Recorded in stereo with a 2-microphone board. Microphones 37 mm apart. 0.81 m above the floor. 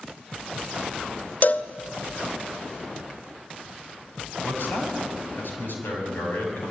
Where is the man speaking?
65° left (ahead or behind), 6 m.